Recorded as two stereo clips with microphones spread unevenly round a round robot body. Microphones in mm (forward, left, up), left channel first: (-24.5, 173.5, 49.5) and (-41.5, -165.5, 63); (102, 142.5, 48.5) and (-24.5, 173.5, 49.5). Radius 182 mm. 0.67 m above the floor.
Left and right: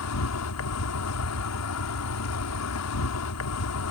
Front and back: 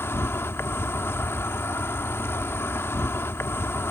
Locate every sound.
0.0 s an insect: 55° left